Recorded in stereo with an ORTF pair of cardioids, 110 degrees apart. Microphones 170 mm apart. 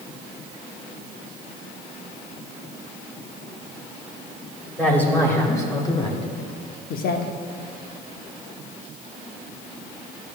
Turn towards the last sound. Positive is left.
turn(degrees=70)